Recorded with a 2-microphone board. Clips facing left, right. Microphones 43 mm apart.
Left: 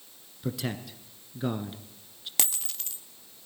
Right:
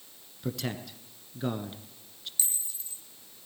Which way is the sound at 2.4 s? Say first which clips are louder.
Left 7 dB; 75° left (ahead or behind).